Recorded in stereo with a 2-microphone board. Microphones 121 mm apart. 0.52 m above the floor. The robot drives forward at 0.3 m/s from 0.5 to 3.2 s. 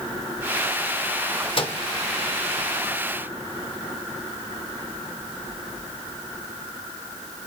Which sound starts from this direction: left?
A microwave, at 1.6 s.